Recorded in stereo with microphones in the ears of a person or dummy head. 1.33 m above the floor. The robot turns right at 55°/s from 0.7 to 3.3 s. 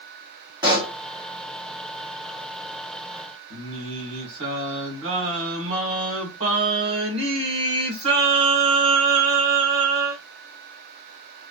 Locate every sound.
0.6 s a pop: 20° right (ahead or behind), 1.5 m; by 0.9 s 35° right (ahead or behind), 1.5 m
3.5 s singing: 35° right (ahead or behind), 2.5 m